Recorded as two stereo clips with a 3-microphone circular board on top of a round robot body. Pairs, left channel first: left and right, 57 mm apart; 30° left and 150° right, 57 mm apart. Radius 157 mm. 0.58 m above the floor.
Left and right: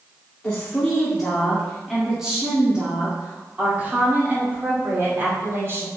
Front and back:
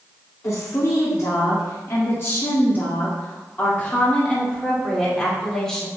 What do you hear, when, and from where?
0.4 s a woman speaking: 20° left, 2.5 m; by 5.9 s 50° right, 3.5 m